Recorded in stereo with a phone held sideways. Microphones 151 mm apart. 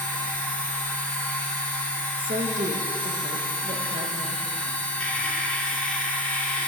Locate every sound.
0.0 s a machine running: 5° left (ahead or behind), 2.5 m
2.2 s a woman speaking: 65° right (ahead or behind), 0.9 m